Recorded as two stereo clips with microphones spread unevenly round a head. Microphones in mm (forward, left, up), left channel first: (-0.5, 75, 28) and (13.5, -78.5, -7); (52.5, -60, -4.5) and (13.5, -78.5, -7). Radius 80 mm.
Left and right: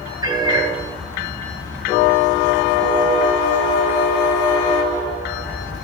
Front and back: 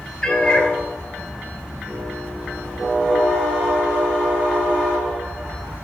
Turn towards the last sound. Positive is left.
turn(degrees=-15)